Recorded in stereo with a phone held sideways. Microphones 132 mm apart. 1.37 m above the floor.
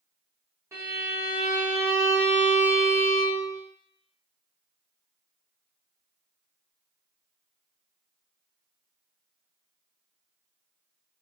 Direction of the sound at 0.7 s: 20° right (ahead or behind).